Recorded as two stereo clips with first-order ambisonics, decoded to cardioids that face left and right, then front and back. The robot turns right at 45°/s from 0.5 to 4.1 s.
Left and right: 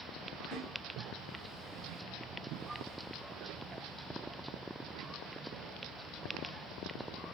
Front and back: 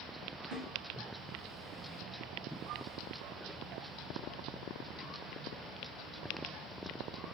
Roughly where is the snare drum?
Behind left.